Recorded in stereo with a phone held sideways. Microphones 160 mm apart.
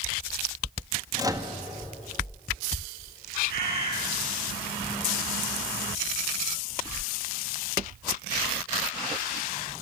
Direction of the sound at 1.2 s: 20° right (ahead or behind).